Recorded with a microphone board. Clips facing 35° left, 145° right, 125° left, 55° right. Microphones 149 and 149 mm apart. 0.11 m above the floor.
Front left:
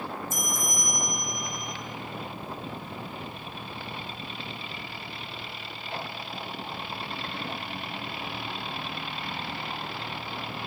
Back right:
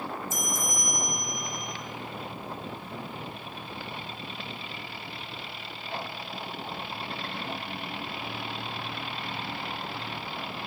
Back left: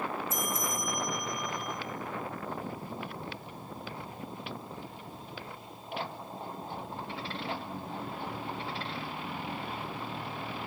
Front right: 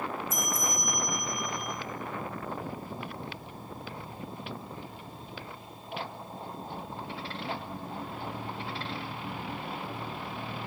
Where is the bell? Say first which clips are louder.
Even, even; 65° left, 1.8 m.